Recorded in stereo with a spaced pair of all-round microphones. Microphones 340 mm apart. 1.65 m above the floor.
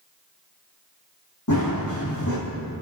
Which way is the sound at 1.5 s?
60° left (ahead or behind).